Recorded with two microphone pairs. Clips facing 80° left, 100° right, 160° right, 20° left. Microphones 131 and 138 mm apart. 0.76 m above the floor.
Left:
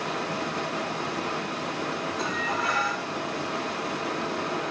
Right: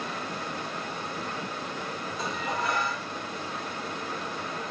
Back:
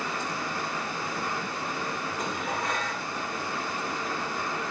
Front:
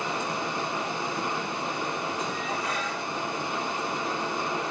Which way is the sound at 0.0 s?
90° left.